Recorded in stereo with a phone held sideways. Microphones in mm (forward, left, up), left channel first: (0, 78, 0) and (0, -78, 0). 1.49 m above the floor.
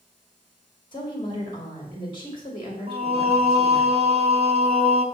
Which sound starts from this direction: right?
Singing, at 2.9 s.